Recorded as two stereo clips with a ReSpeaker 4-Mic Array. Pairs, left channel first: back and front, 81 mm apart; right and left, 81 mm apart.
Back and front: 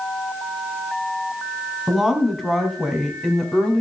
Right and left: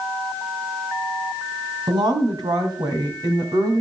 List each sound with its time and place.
1.9 s a woman speaking: 85° left, 3 m; by 3.8 s 105° left, 2.5 m